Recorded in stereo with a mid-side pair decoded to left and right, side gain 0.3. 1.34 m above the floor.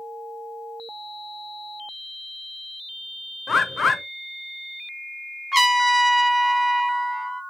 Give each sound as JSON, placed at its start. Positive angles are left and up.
{"t": 3.5, "sound": "a bird", "azimuth_deg": 55, "distance_m": 0.6}
{"t": 5.5, "sound": "a trumpet", "azimuth_deg": -5, "distance_m": 0.7}